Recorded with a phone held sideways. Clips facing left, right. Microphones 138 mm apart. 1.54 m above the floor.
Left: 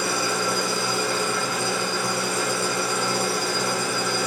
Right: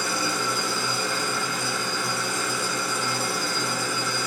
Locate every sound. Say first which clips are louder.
0.0 s an engine running: left 3 dB; 65° left (ahead or behind), 1.6 m